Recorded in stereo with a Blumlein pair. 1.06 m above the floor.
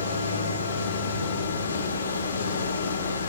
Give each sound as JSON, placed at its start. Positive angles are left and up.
{"t": 0.0, "sound": "a machine running", "azimuth_deg": 65, "distance_m": 1.9}